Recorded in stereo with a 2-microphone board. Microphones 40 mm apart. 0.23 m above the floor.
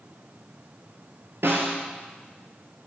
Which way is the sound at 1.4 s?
80° right.